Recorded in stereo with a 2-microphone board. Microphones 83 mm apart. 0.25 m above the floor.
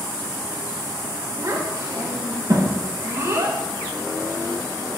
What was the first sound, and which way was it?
A child speaking, 45° right (ahead or behind).